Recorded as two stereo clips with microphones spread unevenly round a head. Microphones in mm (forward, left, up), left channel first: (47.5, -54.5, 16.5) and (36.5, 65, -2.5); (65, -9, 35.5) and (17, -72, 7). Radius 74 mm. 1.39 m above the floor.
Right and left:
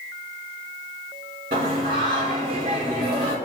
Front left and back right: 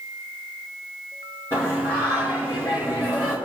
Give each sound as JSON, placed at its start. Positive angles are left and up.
{"t": 1.5, "sound": "singing", "azimuth_deg": 130, "distance_m": 2.5}